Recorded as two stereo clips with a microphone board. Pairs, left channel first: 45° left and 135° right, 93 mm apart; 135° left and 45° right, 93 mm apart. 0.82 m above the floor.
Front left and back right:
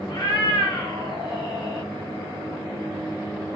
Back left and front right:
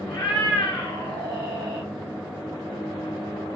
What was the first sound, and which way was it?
A cat meowing, 85° left.